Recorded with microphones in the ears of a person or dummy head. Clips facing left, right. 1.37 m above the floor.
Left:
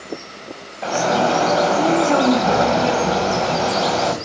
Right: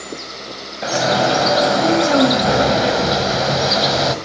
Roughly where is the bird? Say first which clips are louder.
Right 1 dB; right.